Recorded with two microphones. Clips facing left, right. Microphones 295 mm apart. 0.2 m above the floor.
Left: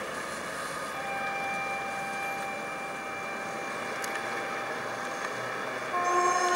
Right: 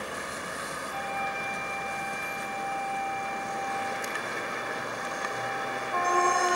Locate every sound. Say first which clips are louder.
0.9 s a flute: right 1 dB; 75° right (ahead or behind), 7 m